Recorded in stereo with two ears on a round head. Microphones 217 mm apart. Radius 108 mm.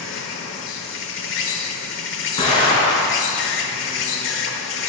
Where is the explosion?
25° left (ahead or behind), 3 m.